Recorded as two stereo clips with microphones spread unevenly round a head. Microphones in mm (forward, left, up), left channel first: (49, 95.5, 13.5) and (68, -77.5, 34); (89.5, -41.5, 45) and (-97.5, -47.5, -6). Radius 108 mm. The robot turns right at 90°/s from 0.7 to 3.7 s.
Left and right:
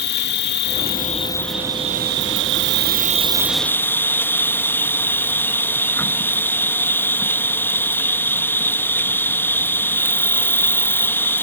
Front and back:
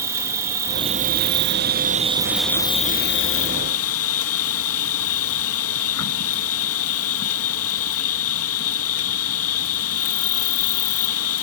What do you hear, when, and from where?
0.0 s an insect: 110° left; by 11.4 s 20° left